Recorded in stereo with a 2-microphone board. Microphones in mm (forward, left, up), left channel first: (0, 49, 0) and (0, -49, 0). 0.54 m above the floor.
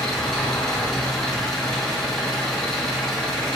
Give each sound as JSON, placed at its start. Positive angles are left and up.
{"t": 0.0, "sound": "an engine running", "side_deg": 5, "distance_m": 0.7}